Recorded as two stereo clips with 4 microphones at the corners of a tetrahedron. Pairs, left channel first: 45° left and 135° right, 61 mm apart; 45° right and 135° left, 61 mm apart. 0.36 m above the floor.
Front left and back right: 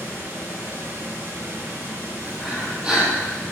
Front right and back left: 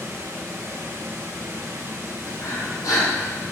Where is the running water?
175° right, 2.5 m.